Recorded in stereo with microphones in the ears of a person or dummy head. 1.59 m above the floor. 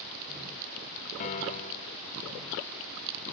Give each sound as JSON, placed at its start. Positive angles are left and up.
{"t": 1.2, "sound": "a piano", "side_deg": 35, "distance_m": 0.5}